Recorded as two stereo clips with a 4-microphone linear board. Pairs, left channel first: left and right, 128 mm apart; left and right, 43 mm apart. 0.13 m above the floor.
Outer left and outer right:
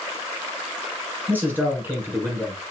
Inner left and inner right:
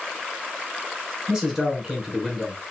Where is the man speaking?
15° right (ahead or behind), 1.1 m.